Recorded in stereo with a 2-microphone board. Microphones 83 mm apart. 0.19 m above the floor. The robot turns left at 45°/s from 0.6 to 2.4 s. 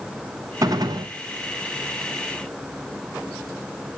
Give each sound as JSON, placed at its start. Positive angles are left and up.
{"t": 0.6, "sound": "a gunshot", "side_deg": -50, "distance_m": 1.1}